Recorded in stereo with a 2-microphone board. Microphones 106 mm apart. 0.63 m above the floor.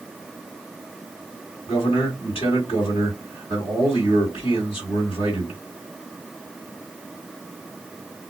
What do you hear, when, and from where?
1.7 s a man speaking: 55° left (ahead or behind), 2 m